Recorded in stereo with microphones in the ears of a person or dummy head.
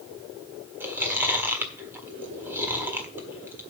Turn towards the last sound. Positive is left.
turn(degrees=-15)  # may be behind; listen again after turning